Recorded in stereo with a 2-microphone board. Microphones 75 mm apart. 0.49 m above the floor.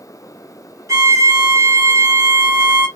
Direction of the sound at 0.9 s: 40° right (ahead or behind).